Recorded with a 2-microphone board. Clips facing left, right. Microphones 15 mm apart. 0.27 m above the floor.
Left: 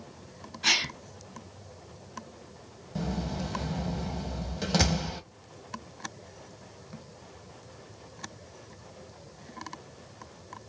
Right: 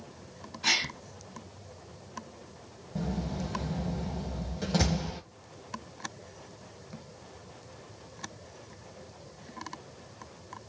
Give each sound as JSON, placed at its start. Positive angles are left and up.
{"t": 0.6, "sound": "a gasp", "side_deg": 15, "distance_m": 1.3}
{"t": 3.0, "sound": "a door slam", "side_deg": 30, "distance_m": 1.1}